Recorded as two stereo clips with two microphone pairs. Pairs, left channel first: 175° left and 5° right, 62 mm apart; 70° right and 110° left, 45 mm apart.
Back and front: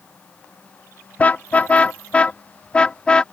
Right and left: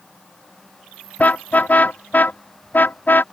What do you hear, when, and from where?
1.2 s a car horn: 120° right; by 3.2 s 115° right